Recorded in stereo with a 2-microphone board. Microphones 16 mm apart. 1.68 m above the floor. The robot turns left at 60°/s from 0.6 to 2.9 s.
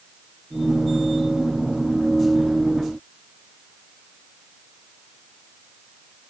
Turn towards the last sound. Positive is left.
No sound to turn to.